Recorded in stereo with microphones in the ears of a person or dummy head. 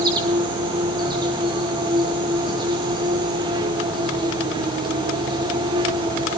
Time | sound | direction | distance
0.0 | an insect | 20° right (ahead or behind) | 1.3 m